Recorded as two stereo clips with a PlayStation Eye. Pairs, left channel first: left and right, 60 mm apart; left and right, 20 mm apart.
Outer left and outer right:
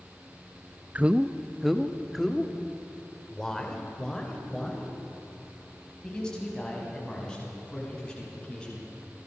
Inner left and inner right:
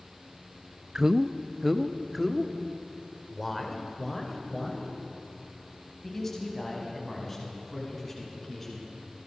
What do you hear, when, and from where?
0.9 s a man speaking: 25° right (ahead or behind), 0.5 m; by 8.8 s 15° left (ahead or behind), 7.5 m